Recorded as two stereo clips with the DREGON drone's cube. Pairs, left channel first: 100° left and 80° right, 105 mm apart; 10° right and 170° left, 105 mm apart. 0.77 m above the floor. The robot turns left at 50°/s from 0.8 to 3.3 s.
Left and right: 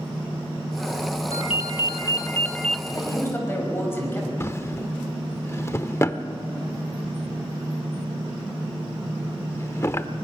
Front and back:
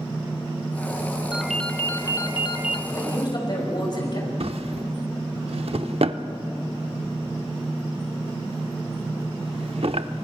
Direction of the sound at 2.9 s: 55° left.